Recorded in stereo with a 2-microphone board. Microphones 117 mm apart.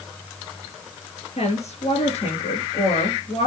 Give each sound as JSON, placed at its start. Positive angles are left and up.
{"t": 1.4, "sound": "a woman speaking", "side_deg": 70, "distance_m": 4.0}